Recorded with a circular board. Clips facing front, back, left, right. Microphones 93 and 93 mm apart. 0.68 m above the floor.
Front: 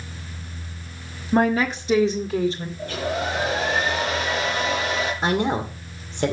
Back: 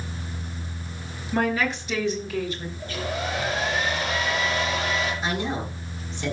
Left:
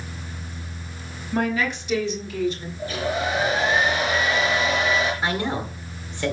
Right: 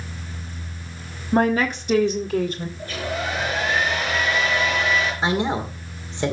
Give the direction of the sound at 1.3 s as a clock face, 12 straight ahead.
2 o'clock.